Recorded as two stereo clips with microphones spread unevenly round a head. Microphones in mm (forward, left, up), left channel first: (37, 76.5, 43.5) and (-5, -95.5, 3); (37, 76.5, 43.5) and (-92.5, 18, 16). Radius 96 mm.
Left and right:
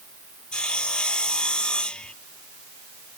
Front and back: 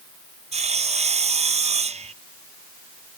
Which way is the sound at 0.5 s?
160° left.